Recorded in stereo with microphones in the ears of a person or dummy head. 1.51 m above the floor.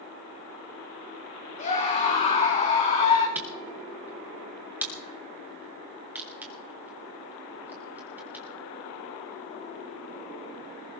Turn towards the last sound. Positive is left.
turn(degrees=-10)  # may be behind; listen again after turning